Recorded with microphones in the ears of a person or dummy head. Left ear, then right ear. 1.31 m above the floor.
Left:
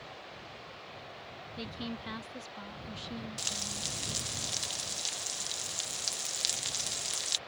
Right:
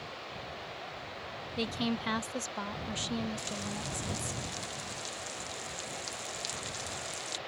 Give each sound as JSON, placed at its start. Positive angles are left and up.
{"t": 1.6, "sound": "a woman speaking", "side_deg": -30}
{"t": 3.4, "sound": "frying", "side_deg": 40}